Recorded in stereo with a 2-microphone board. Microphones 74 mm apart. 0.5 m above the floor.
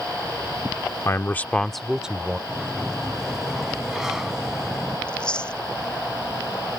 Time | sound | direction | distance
1.1 | a man speaking | 40° left (ahead or behind) | ?
2.5 | a sliding door | 5° right (ahead or behind) | ?
5.1 | chewing | 15° left (ahead or behind) | ?